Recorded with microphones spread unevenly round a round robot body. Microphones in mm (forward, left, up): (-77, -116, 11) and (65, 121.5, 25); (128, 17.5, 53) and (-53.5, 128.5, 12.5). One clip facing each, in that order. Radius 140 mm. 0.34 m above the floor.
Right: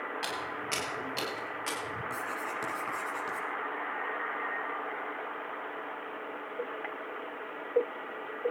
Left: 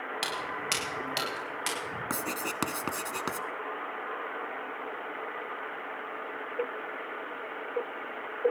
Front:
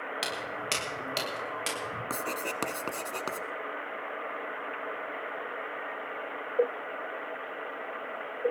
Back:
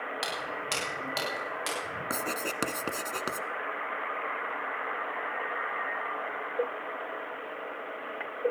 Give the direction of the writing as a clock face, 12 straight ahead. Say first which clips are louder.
Left 4 dB, back 2 dB; 10 o'clock.